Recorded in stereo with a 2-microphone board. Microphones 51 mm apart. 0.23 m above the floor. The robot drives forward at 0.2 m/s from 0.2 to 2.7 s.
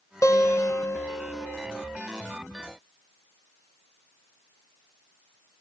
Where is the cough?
I don't hear a cough.